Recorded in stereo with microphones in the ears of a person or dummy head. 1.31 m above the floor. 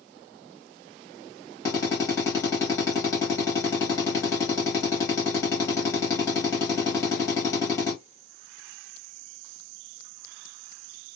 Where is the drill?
10° left (ahead or behind), 2 m.